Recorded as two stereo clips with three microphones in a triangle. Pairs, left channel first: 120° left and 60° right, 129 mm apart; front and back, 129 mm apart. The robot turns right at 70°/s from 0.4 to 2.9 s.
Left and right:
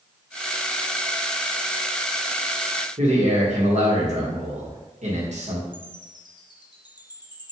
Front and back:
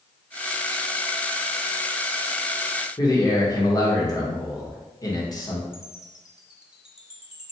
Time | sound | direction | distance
3.0 | a man speaking | 55° right | 1.3 m
5.7 | a chime | 100° left | 0.6 m